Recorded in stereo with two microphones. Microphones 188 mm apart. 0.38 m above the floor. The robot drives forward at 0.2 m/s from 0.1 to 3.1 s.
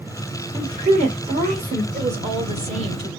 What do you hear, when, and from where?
0.5 s a woman speaking: 30° right (ahead or behind), 1.3 m
1.9 s a woman speaking: 35° right (ahead or behind), 1.0 m; by 3.1 s 30° right (ahead or behind), 1.1 m